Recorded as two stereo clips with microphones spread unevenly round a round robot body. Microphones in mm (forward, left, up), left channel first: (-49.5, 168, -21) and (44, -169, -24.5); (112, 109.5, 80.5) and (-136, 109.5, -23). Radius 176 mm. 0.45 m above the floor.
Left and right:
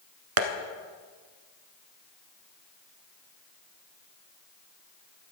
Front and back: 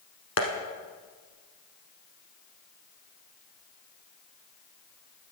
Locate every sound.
0.4 s tapping: 50° right, 1.2 m